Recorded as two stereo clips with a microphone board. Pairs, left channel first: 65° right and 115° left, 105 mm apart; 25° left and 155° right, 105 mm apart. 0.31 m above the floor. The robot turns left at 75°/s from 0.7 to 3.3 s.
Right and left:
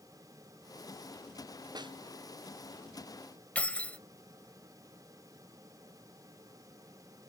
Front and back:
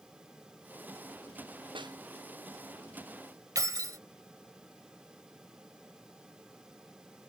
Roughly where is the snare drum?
Behind.